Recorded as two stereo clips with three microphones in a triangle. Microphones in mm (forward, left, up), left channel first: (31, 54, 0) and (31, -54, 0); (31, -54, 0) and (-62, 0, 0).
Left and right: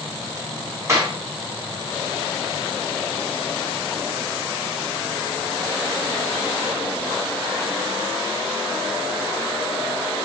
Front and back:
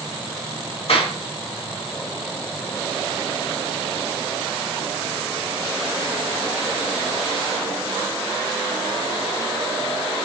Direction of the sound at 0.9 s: 30° right.